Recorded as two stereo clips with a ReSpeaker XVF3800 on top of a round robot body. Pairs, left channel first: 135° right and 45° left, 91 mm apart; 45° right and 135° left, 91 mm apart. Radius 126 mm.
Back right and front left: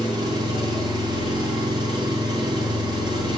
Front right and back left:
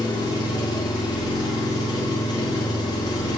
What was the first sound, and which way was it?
An engine running, straight ahead.